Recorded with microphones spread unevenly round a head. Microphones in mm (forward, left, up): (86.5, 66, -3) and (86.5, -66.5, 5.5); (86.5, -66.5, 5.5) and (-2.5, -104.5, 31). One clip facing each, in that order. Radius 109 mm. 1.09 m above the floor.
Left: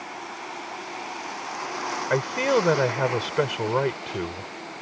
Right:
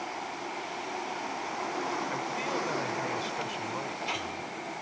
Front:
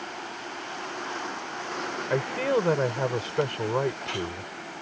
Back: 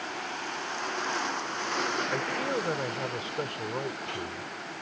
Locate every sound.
2.1 s a man speaking: 80° left